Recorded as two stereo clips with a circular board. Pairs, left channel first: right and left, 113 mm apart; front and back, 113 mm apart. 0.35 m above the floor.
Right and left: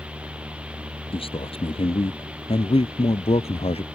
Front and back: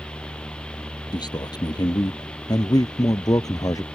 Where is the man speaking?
50° right; by 3.8 s 60° right.